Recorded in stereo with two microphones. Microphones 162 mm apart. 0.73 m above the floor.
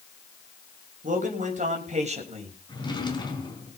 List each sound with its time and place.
1.0 s a man speaking: 55° right (ahead or behind), 4.5 m; by 2.6 s 40° right (ahead or behind), 4.5 m
2.7 s a drawer: 25° left (ahead or behind), 4 m